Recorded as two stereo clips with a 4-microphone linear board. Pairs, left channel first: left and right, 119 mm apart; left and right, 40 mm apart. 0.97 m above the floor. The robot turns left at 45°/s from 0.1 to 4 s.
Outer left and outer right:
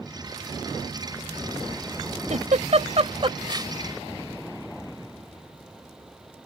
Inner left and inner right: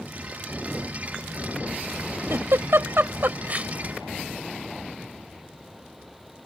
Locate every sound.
2.3 s a giggle: 80° right; by 3.7 s 30° right (ahead or behind)